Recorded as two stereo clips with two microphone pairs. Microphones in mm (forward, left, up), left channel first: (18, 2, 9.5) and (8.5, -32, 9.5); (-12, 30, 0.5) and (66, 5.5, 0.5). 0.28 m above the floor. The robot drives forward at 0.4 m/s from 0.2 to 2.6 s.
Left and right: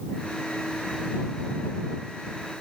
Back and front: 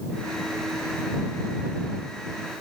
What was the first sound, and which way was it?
Only background noise.